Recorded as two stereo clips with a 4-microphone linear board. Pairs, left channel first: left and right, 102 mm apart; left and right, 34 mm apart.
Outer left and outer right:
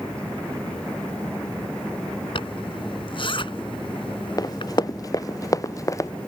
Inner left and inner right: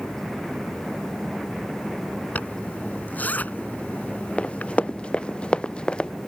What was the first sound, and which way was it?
A zipper, 55° left (ahead or behind).